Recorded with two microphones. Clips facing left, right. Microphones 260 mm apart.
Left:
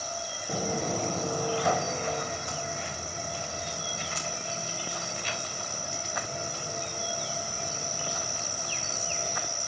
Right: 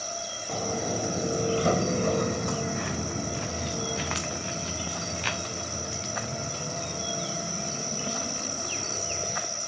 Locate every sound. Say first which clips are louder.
0.5 s footsteps: even; 10° left (ahead or behind), 1.0 m; by 9.4 s 75° right (ahead or behind), 5 m